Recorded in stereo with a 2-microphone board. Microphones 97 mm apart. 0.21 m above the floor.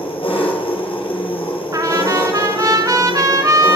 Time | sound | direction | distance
0.0 | an engine running | 70° left (ahead or behind) | 2.5 m
1.7 | a trumpet | 40° right (ahead or behind) | 1.2 m